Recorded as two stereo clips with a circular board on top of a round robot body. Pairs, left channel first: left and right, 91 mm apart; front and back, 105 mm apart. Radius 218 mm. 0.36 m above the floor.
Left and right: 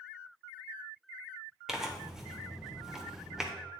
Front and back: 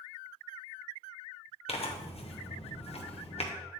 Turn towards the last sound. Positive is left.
turn(degrees=-5)